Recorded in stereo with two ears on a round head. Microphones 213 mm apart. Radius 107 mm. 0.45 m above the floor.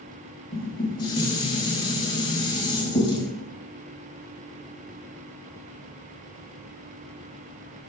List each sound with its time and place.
0.5 s dishes clattering: 20° left (ahead or behind), 1.6 m